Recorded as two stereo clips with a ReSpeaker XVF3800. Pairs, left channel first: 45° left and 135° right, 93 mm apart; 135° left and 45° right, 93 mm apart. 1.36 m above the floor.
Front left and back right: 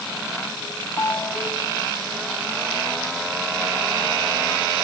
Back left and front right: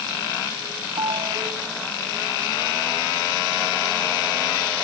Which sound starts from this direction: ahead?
A ringtone, at 1.0 s.